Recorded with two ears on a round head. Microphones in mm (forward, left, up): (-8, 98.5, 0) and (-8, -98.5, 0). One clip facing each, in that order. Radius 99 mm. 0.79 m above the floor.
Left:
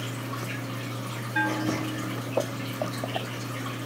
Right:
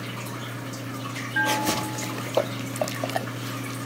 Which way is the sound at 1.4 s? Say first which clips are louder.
Even; 40° left (ahead or behind).